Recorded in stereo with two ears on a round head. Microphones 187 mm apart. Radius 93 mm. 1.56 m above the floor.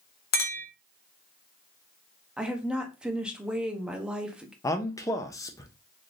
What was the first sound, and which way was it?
A clink, 50° left (ahead or behind).